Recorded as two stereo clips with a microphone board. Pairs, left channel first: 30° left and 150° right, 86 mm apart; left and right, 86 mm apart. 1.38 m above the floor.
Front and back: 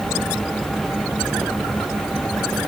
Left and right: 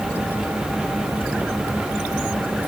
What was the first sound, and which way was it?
Only background noise.